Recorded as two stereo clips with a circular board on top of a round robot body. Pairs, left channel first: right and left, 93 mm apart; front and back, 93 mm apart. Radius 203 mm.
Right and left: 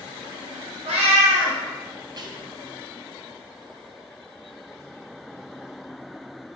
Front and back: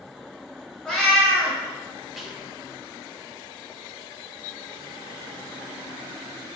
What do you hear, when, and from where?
0.8 s a cat meowing: 85° left, 0.6 m
2.2 s whispering: 90° left, 0.9 m